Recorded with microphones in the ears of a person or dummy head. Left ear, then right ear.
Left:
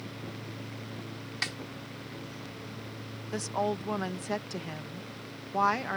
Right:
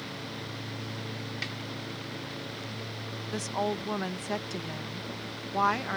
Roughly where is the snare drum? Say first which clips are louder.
Left 4 dB; left.